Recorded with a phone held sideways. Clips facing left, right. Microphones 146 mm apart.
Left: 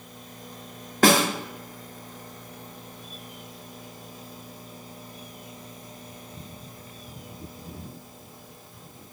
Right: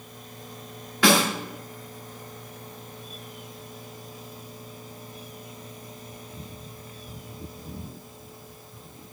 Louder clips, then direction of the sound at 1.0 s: Left 1 dB; 45° left (ahead or behind).